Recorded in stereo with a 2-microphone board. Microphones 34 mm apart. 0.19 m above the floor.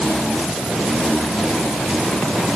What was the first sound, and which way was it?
Only background noise.